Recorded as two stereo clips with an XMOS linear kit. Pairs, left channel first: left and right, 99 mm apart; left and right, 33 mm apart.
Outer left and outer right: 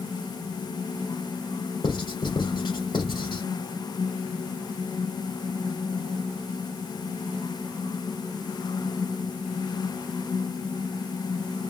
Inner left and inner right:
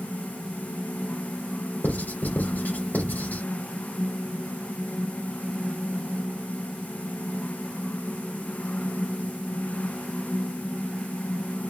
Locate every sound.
1.8 s writing: 55° left (ahead or behind), 3.5 m